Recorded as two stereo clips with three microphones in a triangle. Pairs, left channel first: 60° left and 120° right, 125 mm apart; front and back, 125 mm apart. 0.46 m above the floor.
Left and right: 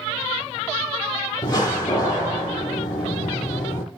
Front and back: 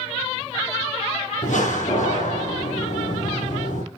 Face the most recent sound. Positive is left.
turn(degrees=5)